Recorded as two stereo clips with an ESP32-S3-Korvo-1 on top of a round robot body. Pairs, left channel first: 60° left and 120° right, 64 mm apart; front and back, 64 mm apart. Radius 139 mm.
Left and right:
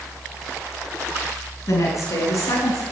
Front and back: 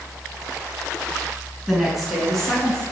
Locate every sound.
1.7 s a woman speaking: 90° left, 6 m; by 2.8 s 80° left, 5.5 m